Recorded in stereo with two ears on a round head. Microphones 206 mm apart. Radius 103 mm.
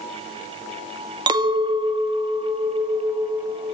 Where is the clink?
20° right (ahead or behind), 0.5 m.